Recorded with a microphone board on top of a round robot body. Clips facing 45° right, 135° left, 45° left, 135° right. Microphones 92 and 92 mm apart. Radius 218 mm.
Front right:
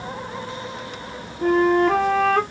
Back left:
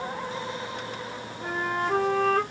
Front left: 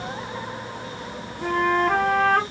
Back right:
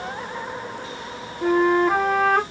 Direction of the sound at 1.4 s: 55° right.